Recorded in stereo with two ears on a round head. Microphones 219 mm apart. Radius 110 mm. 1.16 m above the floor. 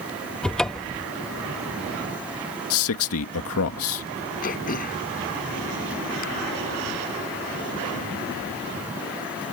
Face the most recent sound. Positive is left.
turn(degrees=40)  # may be behind; listen again after turning